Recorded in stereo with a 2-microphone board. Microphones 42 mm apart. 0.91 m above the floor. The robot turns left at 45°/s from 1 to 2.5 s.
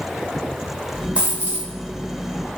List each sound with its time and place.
1.1 s a dropped coin: 25° right (ahead or behind), 0.9 m; by 1.7 s 45° right (ahead or behind), 0.9 m